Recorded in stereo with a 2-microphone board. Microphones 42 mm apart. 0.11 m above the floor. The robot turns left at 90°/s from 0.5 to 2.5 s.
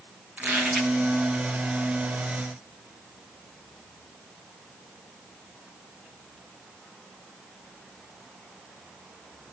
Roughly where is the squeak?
Behind right.